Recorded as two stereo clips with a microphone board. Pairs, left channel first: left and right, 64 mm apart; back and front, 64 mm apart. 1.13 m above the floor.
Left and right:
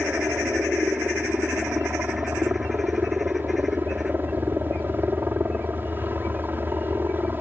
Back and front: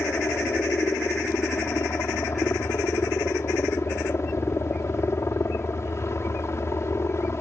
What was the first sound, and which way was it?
A helicopter, 140° right.